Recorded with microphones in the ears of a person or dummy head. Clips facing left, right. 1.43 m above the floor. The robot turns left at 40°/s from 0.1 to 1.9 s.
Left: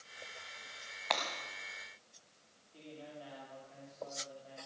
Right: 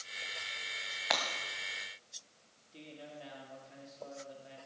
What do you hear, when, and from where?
1.1 s breaking glass: 5° right (ahead or behind), 1.5 m; by 1.2 s 10° right (ahead or behind), 1.5 m
2.7 s a man speaking: 30° right (ahead or behind), 3 m